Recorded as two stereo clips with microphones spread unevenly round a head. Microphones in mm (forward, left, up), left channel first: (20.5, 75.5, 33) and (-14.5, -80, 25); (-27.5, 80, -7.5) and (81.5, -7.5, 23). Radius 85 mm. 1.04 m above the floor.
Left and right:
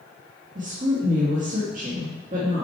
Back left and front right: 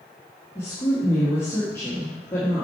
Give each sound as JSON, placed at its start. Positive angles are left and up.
{"t": 0.6, "sound": "a woman speaking", "azimuth_deg": -145, "distance_m": 1.4}